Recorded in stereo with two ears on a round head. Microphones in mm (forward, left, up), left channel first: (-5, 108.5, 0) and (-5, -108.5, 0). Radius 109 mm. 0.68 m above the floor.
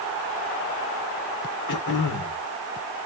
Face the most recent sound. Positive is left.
turn(degrees=80)